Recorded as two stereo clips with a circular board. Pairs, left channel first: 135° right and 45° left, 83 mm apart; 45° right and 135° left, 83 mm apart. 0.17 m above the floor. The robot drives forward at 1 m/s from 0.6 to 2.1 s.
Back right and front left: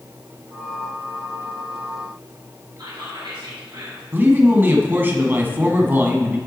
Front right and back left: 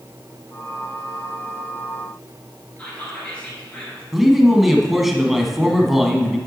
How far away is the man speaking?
About 1.1 m.